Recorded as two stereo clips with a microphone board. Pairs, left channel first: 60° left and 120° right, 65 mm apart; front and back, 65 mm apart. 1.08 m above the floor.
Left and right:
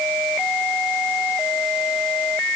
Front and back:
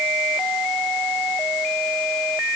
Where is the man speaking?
I don't hear a man speaking.